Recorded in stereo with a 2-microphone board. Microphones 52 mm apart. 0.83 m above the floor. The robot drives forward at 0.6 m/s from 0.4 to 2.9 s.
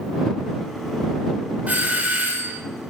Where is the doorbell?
35° right (ahead or behind), 1.4 m; by 2.6 s 40° right (ahead or behind), 1.3 m.